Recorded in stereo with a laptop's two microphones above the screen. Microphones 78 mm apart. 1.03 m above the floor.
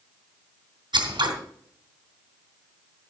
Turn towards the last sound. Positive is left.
turn(degrees=-75)  # may be behind; listen again after turning